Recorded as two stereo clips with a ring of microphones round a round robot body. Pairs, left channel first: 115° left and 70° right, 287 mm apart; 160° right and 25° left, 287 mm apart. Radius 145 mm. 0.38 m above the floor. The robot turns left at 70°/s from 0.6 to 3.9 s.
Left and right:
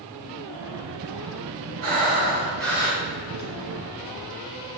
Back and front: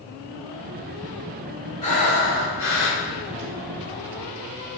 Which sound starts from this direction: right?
Breathing, at 1.8 s.